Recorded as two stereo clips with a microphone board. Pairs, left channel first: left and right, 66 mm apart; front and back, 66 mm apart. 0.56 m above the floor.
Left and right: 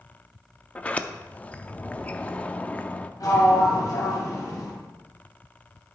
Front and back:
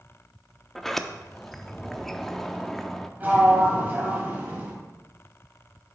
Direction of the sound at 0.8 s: 75° left.